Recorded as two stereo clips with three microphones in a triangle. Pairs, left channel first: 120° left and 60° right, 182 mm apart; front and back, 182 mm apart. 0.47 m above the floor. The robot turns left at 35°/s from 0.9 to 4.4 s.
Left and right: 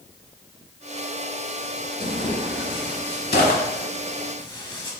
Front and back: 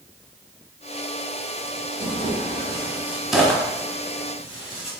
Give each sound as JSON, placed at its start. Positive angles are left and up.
{"t": 2.0, "sound": "tearing paper", "azimuth_deg": 140, "distance_m": 0.7}